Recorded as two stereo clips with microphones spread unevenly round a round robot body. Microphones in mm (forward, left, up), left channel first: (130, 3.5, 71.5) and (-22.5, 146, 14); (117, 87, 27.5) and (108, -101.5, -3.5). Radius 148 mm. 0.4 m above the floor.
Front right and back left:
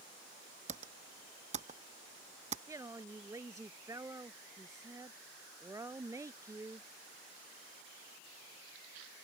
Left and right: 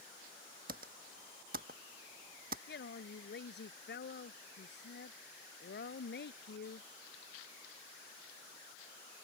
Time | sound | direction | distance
0.7 | typing on a keyboard | 155° right | ?
2.7 | a woman speaking | 60° left | ?